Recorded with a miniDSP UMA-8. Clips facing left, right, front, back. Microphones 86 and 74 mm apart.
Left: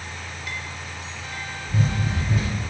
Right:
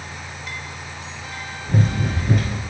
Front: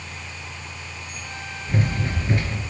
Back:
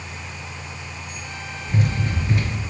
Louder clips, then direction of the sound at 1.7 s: Right 4 dB, back 1 dB; 60° right.